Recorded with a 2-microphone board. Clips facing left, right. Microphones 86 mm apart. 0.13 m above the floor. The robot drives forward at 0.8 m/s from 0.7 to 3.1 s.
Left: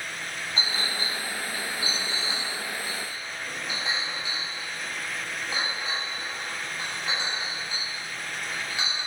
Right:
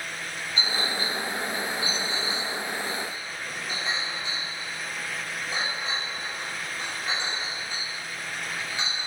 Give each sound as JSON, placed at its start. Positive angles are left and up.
{"t": 0.6, "sound": "a clink", "side_deg": 35, "distance_m": 1.9}